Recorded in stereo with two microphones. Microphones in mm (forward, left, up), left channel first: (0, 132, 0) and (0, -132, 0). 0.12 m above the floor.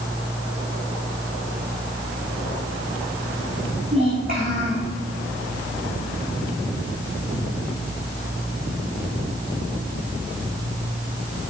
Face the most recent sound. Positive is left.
turn(degrees=-45)  # may be behind; listen again after turning